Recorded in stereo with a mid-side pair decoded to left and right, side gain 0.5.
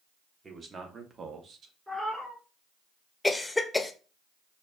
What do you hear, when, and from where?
0.4 s a man speaking: 30° right, 1.7 m; by 1.8 s 55° right, 1.2 m
1.9 s a cat meowing: 10° right, 2 m
3.2 s a cough: 15° left, 0.9 m